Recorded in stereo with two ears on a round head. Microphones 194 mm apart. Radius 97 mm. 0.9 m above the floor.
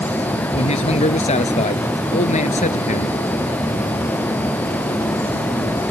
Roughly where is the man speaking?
Left.